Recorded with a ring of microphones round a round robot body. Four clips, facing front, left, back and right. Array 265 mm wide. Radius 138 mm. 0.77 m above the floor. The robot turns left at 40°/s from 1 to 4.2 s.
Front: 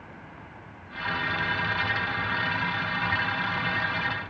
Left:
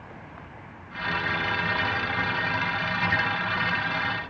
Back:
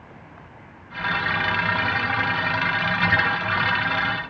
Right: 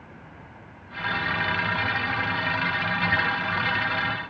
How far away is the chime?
I don't hear a chime.